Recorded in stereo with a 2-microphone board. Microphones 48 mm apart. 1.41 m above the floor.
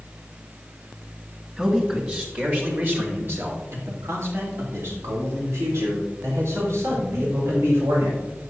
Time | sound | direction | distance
1.6 | a man speaking | 15° right (ahead or behind) | 2 m